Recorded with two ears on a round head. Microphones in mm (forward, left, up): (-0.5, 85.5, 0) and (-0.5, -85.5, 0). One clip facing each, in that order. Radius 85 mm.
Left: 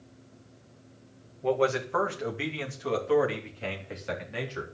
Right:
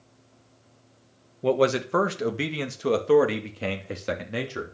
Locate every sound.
1.4 s a man speaking: 45° right (ahead or behind), 2.0 m; by 4.7 s 65° right (ahead or behind), 4 m